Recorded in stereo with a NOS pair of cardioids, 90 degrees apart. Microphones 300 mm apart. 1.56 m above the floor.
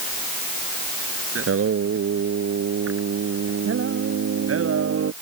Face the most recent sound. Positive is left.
turn(degrees=-50)